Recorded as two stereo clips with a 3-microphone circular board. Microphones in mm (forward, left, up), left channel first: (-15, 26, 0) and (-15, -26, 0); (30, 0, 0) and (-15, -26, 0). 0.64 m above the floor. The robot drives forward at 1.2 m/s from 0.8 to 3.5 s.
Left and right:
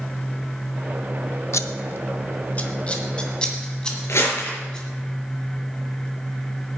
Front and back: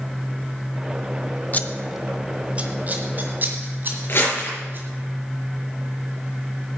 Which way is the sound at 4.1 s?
65° left.